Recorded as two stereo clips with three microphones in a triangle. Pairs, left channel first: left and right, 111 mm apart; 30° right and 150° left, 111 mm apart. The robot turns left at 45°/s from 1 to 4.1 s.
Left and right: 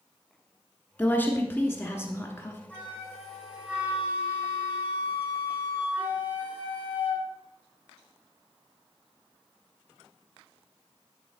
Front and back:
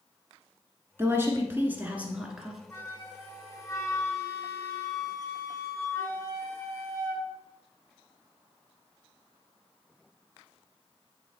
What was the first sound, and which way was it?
A woman speaking, 140° left.